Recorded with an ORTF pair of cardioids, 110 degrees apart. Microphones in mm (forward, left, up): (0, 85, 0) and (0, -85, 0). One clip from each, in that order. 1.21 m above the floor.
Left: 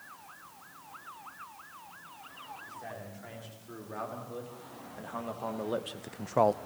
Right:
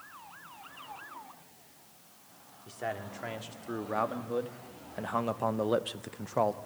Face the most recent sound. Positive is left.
turn(degrees=25)